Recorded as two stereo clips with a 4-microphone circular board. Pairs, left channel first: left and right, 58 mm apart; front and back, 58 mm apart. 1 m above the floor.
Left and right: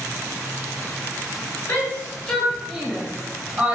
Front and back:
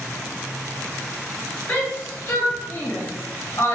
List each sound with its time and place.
1.7 s a shout: 55° left, 0.9 m; by 3.8 s 35° right, 1.1 m